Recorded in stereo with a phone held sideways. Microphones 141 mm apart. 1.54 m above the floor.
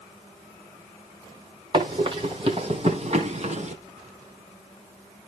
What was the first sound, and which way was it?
Running footsteps, 35° right (ahead or behind).